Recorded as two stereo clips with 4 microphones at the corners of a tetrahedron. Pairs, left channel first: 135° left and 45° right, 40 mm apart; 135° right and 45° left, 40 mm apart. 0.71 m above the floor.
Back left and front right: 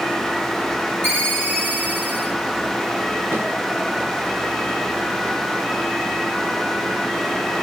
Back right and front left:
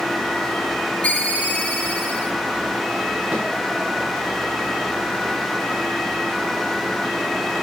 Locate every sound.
1.0 s a ringtone: 75° right, 6.5 m
3.3 s a snare drum: 30° right, 10 m